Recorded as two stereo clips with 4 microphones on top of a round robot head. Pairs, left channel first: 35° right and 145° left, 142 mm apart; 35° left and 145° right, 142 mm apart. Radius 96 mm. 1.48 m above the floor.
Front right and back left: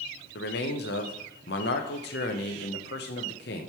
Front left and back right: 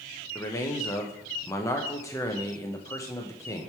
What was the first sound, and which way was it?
A man speaking, 35° right.